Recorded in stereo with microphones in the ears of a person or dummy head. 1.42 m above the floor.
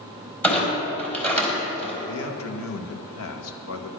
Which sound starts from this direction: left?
A man speaking, at 2.0 s.